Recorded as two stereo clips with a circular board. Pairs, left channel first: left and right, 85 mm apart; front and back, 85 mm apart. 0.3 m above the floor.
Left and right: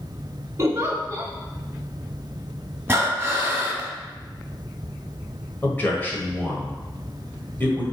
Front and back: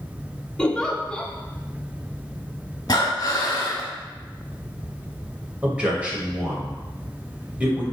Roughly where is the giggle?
Right.